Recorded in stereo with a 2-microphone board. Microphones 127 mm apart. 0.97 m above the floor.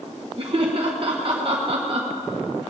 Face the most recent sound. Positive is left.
turn(degrees=-45)  # may be behind; listen again after turning